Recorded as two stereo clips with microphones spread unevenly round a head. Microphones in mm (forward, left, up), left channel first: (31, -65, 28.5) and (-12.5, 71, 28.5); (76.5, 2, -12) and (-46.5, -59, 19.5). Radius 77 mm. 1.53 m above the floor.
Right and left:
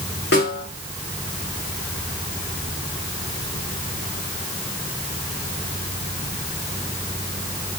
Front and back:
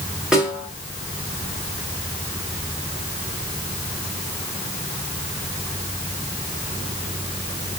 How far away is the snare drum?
About 5 m.